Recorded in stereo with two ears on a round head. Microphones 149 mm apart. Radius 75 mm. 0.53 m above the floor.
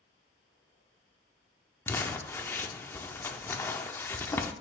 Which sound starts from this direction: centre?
Crumpling, at 1.9 s.